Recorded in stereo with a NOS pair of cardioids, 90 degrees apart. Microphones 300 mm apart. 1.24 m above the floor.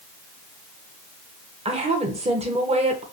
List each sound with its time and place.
1.6 s a woman speaking: 20° right, 0.8 m